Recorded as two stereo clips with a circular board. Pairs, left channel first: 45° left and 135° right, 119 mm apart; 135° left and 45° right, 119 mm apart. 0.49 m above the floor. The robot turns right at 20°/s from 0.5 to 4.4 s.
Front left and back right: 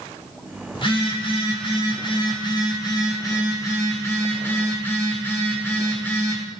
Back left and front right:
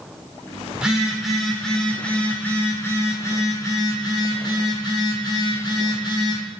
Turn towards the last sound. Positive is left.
turn(degrees=110)